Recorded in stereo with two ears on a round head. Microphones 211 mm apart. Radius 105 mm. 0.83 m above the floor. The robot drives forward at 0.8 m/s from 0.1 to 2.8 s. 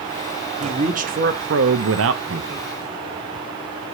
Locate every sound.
0.6 s a man speaking: 25° right (ahead or behind), 1.3 m; by 2.7 s 40° right (ahead or behind), 0.9 m